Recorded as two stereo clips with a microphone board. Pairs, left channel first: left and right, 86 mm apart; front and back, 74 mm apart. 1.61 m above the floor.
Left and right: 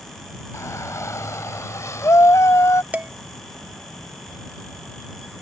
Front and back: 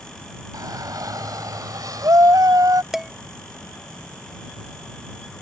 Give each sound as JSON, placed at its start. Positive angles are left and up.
{"t": 0.5, "sound": "a shout", "azimuth_deg": 145}
{"t": 2.9, "sound": "dishes clattering", "azimuth_deg": -105}